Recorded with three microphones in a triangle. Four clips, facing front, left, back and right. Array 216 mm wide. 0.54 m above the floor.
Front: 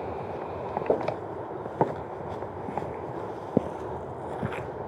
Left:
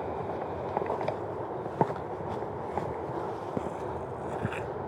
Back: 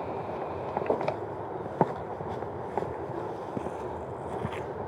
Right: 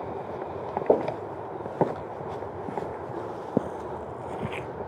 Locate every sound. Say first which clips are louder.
0.9 s footsteps: right 7 dB, front 4 dB; 75° right; by 4.7 s 15° right